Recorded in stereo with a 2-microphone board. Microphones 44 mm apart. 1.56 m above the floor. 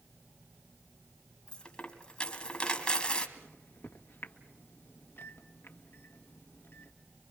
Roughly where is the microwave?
Left.